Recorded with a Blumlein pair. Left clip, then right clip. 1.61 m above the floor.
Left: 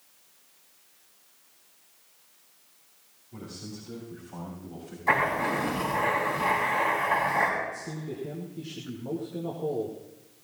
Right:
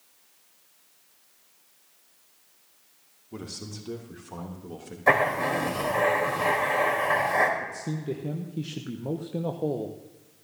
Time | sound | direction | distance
3.3 | a man speaking | 35° right | 2.5 m
5.1 | writing | 40° right | 3.5 m
7.6 | a man speaking | 25° right | 1.2 m